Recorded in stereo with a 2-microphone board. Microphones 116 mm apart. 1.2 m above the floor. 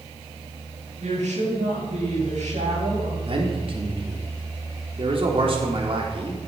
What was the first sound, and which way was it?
A woman speaking, 85° right.